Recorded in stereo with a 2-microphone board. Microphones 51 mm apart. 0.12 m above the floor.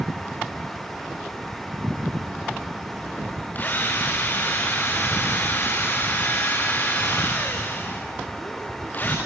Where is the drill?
35° left (ahead or behind), 4 m.